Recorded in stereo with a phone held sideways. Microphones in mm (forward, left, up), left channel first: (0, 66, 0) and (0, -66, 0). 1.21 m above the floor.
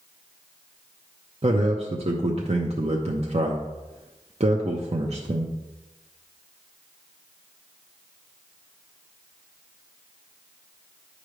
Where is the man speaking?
50° right (ahead or behind), 0.8 m.